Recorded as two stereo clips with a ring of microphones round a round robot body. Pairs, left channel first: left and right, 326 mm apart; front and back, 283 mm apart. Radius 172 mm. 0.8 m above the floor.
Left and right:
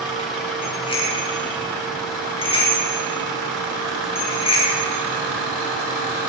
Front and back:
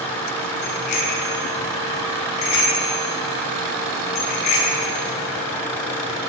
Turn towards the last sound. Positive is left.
turn(degrees=15)